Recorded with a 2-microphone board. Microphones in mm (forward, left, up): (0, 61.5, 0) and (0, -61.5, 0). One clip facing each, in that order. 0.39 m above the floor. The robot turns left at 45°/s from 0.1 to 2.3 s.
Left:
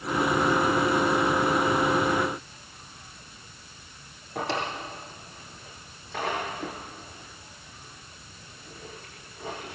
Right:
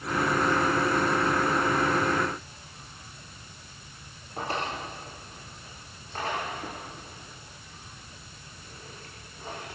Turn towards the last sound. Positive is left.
turn(degrees=80)